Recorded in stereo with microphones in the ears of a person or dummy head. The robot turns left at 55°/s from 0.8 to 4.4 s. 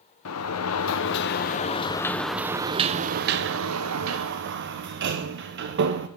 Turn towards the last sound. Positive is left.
turn(degrees=-115)